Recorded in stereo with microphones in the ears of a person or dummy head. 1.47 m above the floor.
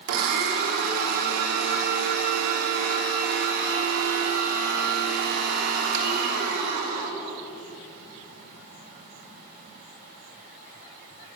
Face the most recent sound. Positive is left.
turn(degrees=-55)  # may be behind; listen again after turning